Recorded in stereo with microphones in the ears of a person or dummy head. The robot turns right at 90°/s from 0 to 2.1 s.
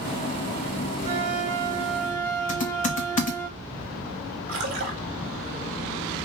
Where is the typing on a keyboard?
35° left (ahead or behind), 1.0 m.